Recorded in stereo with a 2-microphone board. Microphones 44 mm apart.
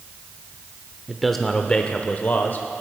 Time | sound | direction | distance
1.1 | a man speaking | 5° right (ahead or behind) | 0.8 m